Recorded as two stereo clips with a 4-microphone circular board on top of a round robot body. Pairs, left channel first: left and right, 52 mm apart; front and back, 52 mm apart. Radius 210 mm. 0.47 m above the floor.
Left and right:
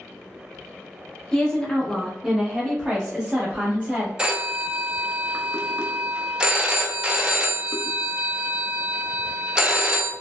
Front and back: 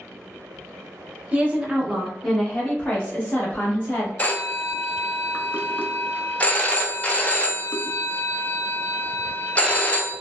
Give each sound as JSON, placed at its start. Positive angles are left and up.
{"t": 1.3, "sound": "a woman speaking", "azimuth_deg": 155, "distance_m": 1.2}
{"t": 4.2, "sound": "a phone ringing", "azimuth_deg": -30, "distance_m": 0.8}